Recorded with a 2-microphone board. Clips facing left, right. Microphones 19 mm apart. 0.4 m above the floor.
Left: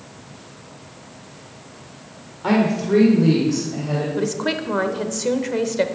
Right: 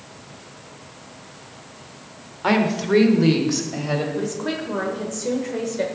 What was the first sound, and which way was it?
A woman speaking, 20° right (ahead or behind).